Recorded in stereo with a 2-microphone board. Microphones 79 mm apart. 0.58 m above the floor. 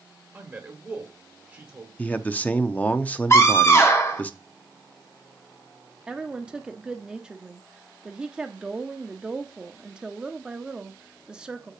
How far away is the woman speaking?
About 0.8 m.